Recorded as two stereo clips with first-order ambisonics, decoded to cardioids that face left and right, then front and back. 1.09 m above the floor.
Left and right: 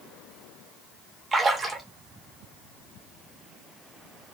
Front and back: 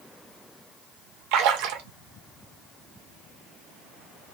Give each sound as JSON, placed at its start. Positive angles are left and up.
{"t": 1.3, "sound": "a splash", "azimuth_deg": -170, "distance_m": 0.6}